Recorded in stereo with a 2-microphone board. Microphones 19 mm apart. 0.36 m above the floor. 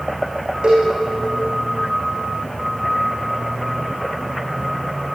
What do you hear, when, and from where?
0.6 s a cowbell: 50° right (ahead or behind), 8.5 m